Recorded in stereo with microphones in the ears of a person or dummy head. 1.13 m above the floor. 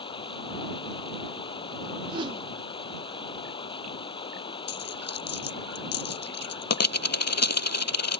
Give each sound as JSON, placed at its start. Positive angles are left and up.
{"t": 0.0, "sound": "running water", "side_deg": 30}
{"t": 2.1, "sound": "a whoosh", "side_deg": -25}
{"t": 4.7, "sound": "a dropped coin", "side_deg": 65}